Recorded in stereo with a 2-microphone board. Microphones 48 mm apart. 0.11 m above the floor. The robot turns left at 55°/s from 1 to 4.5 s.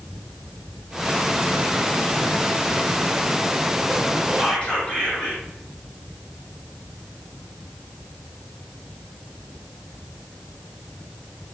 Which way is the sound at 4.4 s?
20° left (ahead or behind).